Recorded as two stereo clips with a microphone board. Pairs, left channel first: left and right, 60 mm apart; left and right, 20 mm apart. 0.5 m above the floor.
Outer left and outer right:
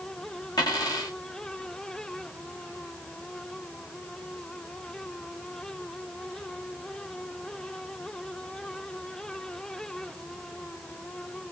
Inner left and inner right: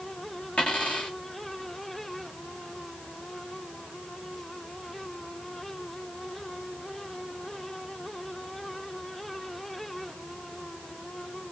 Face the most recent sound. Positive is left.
turn(degrees=85)